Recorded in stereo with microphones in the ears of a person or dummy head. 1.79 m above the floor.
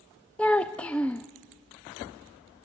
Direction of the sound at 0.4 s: 10° left (ahead or behind).